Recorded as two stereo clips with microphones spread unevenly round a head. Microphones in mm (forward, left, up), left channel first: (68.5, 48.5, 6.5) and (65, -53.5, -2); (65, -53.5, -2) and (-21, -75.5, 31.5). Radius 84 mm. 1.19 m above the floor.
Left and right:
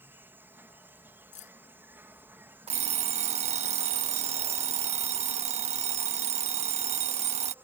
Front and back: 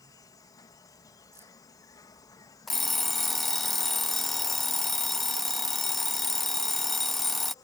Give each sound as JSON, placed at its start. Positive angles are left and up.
{"t": 0.0, "sound": "an insect", "azimuth_deg": -25}
{"t": 1.3, "sound": "keys jangling", "azimuth_deg": 120}
{"t": 2.7, "sound": "an alarm clock", "azimuth_deg": -80}